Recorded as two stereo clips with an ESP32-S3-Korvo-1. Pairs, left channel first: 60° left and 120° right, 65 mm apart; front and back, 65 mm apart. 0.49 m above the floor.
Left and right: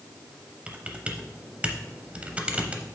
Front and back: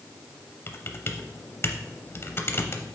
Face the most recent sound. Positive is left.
turn(degrees=-50)